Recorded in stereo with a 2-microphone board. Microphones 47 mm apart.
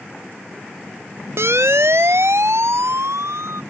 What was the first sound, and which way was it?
A siren, 70° right (ahead or behind).